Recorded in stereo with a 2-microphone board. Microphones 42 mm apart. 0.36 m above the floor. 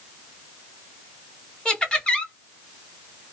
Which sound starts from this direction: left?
Laughter, at 1.6 s.